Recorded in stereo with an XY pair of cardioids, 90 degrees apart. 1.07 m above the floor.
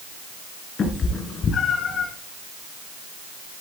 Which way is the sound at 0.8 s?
55° left.